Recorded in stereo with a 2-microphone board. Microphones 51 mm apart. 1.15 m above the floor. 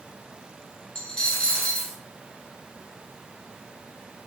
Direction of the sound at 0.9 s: 25° left (ahead or behind).